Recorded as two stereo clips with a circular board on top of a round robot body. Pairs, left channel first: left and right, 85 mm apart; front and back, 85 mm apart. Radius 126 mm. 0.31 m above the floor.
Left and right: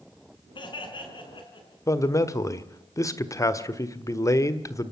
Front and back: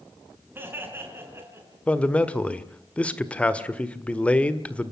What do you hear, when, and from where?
0.6 s laughter: 115° left, 4.5 m; by 1.8 s 120° left, 5 m
1.9 s a man speaking: 70° left, 1.8 m